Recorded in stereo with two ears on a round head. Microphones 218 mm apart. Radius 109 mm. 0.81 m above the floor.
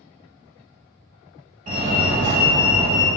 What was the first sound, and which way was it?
A fire alarm, 35° right (ahead or behind).